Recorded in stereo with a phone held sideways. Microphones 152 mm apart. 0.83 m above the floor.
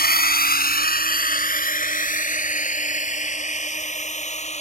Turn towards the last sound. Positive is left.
turn(degrees=50)  # may be behind; listen again after turning